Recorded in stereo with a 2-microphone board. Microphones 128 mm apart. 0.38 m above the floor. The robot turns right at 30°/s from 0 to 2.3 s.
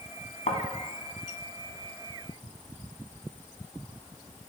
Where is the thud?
70° left (ahead or behind), 1.2 m; by 0.6 s 65° left (ahead or behind), 1.2 m.